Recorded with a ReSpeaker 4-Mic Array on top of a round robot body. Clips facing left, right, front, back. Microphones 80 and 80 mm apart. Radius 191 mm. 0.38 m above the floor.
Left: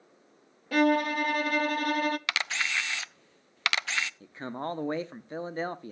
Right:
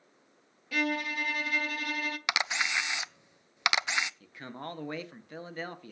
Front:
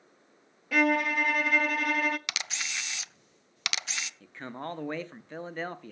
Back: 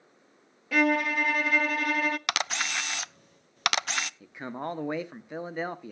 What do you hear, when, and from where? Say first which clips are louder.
0.7 s a violin: left 8 dB, back 1 dB; 90° left, 0.7 m
2.3 s a camera shutter: right 1 dB, back 8 dB; 160° right, 0.5 m
4.2 s a man speaking: left 6 dB, back 3 dB; 115° left, 1.0 m